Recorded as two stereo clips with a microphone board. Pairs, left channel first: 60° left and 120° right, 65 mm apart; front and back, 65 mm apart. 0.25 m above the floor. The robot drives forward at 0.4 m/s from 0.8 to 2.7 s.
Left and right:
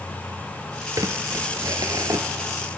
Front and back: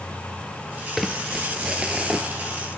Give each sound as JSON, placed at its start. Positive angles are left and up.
{"t": 1.0, "sound": "crumpling", "azimuth_deg": -90, "distance_m": 2.0}